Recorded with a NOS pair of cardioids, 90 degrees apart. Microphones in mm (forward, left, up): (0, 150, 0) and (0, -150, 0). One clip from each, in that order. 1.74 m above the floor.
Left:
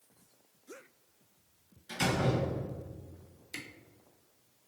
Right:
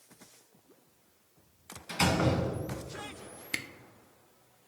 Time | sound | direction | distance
1.9 | a door slam | 45° right | 1.5 m
3.5 | a camera shutter | 55° right | 0.6 m